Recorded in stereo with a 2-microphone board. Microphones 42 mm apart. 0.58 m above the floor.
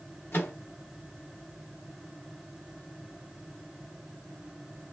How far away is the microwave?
About 1.2 m.